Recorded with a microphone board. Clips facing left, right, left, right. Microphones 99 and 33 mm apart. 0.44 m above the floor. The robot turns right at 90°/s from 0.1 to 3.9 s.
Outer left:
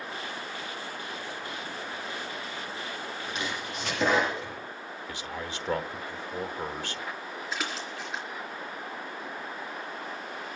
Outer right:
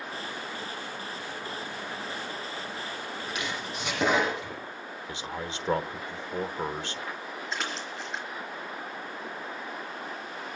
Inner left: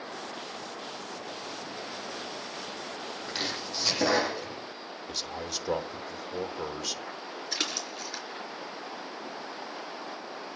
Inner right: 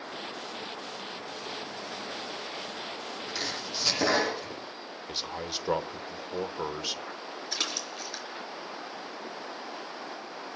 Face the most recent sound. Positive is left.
turn(degrees=0)  # may be behind; listen again after turning